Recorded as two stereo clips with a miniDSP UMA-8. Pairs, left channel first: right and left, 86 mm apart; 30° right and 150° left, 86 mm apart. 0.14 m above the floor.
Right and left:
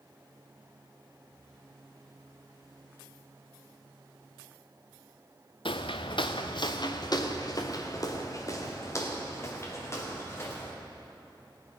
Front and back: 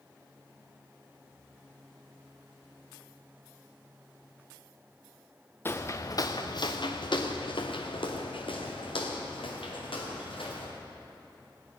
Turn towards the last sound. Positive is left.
turn(degrees=-30)